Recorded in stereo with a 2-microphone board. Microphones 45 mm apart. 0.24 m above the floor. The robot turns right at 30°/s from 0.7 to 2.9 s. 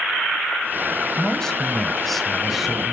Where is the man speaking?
15° left (ahead or behind), 1.0 m; by 2.9 s 5° right (ahead or behind), 1.0 m.